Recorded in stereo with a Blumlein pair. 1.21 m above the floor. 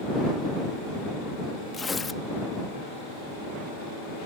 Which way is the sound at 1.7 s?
15° left.